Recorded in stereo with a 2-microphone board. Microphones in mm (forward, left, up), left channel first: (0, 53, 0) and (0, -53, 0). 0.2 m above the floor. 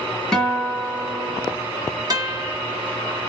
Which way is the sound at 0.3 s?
5° left (ahead or behind).